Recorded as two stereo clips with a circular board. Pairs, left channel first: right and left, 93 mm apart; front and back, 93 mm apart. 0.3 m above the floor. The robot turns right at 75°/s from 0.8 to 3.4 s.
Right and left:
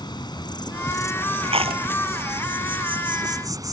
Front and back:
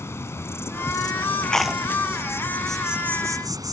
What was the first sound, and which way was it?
An insect, 60° right.